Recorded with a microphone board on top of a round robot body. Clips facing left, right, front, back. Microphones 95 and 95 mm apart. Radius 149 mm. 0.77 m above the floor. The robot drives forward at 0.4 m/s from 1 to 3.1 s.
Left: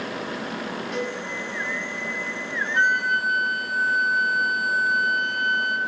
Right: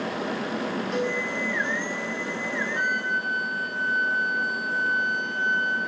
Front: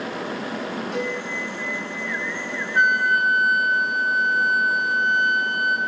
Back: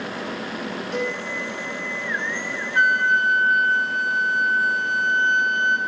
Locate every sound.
0.9 s a cowbell: 145° right, 6 m
2.8 s a flute: 75° left, 1.3 m; by 5.8 s 80° left, 1.3 m